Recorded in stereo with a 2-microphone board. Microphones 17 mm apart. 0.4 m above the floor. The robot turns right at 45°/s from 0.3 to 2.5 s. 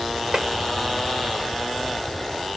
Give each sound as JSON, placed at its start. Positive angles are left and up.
{"t": 0.3, "sound": "tapping", "side_deg": -35, "distance_m": 0.8}